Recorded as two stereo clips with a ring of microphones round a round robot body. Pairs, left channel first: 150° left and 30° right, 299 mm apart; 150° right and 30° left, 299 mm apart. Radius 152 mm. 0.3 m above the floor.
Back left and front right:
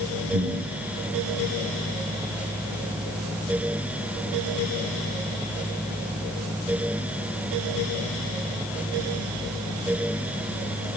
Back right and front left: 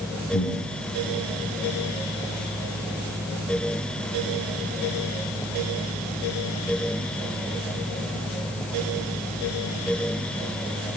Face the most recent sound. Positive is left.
turn(degrees=-85)